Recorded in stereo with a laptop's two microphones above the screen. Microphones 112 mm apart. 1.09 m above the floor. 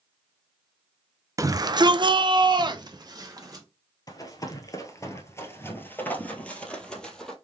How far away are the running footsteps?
About 1.3 m.